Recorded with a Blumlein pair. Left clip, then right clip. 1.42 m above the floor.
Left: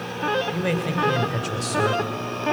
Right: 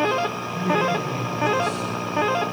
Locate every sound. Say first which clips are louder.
0.5 s a man speaking: right 3 dB; 50° left, 5 m; by 2.0 s 30° left, 4.5 m